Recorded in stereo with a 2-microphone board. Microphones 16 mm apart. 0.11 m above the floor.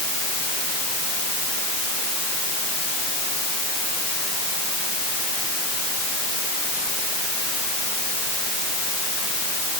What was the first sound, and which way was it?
Only background noise.